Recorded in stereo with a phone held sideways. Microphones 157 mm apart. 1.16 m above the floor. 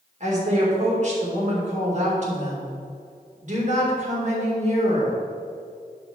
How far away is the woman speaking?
About 3 m.